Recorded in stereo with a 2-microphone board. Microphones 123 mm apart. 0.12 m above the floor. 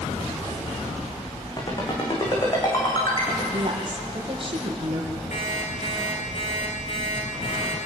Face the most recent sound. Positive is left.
turn(degrees=65)  # may be behind; listen again after turning